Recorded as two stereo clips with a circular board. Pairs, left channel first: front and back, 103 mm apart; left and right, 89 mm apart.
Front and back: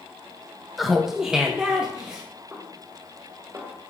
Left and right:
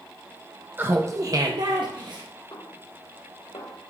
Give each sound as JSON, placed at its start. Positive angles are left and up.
{"t": 0.8, "sound": "laughter", "azimuth_deg": -90, "distance_m": 0.6}
{"t": 2.5, "sound": "a snare drum", "azimuth_deg": 120, "distance_m": 2.0}